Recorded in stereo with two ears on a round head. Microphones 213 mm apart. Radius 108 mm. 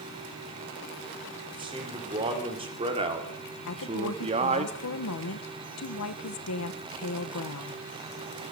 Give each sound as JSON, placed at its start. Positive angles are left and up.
{"t": 1.5, "sound": "a man speaking", "side_deg": -20, "distance_m": 4.0}
{"t": 3.7, "sound": "a woman speaking", "side_deg": 70, "distance_m": 1.3}